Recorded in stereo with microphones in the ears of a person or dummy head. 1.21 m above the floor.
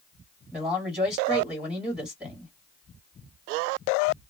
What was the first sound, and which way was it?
A man speaking, 10° right (ahead or behind).